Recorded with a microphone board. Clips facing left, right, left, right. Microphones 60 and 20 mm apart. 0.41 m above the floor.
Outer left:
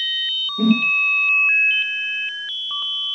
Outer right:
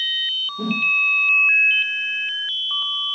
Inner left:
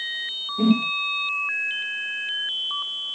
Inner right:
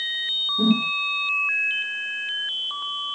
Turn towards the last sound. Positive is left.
turn(degrees=70)  # may be behind; listen again after turning